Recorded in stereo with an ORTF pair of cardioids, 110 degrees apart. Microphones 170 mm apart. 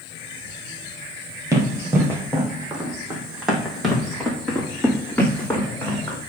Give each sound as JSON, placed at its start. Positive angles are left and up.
{"t": 1.5, "sound": "running footsteps", "azimuth_deg": -20, "distance_m": 3.0}